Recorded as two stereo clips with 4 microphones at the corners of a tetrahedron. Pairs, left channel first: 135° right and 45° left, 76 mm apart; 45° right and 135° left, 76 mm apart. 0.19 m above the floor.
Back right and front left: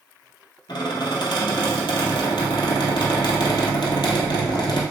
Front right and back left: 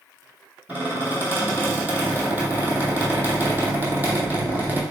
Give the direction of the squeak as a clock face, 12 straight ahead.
5 o'clock.